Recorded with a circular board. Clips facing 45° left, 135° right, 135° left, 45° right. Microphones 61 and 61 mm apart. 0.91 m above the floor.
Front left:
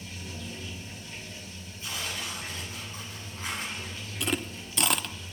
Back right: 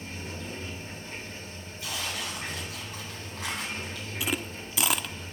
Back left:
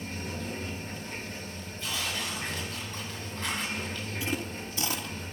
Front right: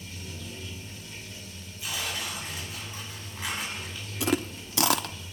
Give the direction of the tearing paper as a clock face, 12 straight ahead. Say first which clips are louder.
Back right 1 dB, even; 4 o'clock.